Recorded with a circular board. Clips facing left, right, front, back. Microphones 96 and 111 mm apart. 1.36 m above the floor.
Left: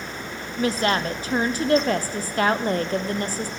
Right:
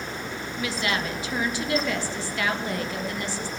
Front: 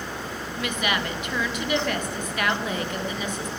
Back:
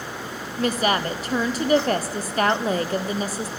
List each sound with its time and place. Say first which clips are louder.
0.6 s a woman speaking: left 6 dB, back 6 dB; 130° left, 0.5 m